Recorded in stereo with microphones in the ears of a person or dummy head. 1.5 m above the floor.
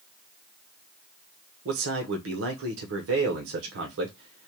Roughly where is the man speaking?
Right.